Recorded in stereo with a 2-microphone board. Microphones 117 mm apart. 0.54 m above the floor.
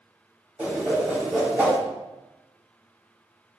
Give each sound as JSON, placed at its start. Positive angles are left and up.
{"t": 0.6, "sound": "a whoosh", "side_deg": -10, "distance_m": 3.5}